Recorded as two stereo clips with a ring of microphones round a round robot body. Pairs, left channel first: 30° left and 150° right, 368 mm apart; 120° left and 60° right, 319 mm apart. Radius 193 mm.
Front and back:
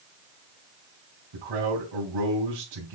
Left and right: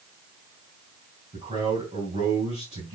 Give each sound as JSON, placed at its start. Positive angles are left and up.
{"t": 1.3, "sound": "a man speaking", "azimuth_deg": -130, "distance_m": 3.5}